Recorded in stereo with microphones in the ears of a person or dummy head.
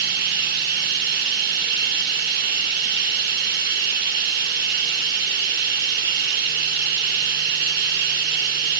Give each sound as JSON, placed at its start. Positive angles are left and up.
{"t": 0.0, "sound": "running water", "side_deg": -50, "distance_m": 1.5}